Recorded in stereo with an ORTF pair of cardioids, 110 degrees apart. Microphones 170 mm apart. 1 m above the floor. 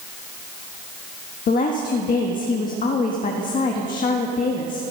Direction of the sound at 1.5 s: 55° left.